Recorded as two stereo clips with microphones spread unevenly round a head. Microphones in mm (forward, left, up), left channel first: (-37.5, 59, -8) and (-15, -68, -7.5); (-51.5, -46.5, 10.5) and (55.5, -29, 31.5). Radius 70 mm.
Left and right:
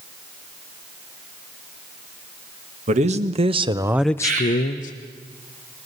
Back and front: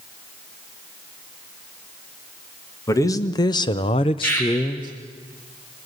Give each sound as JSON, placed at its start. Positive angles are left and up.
{"t": 2.9, "sound": "a man speaking", "azimuth_deg": -110, "distance_m": 2.0}
{"t": 4.2, "sound": "a bird", "azimuth_deg": -105, "distance_m": 6.5}